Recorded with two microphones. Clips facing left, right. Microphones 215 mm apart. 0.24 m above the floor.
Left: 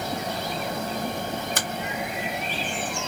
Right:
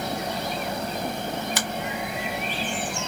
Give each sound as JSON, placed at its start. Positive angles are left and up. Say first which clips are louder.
{"t": 1.6, "sound": "a finger snap", "louder": "right 1 dB", "side_deg": 50, "distance_m": 1.3}